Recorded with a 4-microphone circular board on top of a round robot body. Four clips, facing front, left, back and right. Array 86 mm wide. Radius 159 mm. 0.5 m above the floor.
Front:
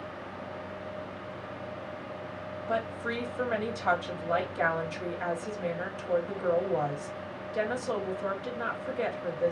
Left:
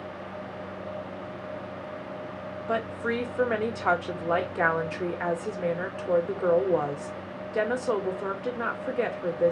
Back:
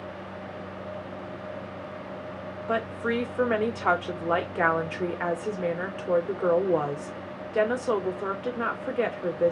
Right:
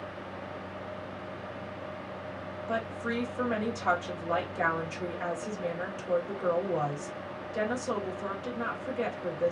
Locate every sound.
2.7 s a woman speaking: 145° left, 1.7 m